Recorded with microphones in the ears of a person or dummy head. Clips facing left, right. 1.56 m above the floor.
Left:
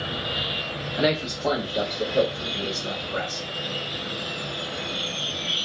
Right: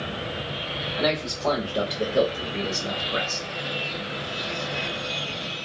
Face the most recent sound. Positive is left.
turn(degrees=-45)  # may be behind; listen again after turning